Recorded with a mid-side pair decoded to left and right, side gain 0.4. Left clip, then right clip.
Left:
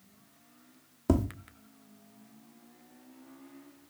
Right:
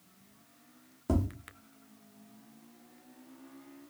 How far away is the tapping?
About 0.8 m.